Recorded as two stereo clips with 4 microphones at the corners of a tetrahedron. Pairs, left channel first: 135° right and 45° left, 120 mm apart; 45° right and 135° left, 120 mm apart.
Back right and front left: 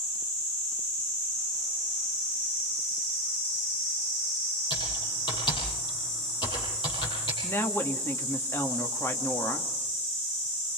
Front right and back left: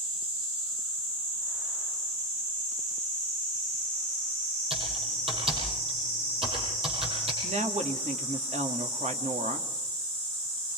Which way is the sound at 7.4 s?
155° left.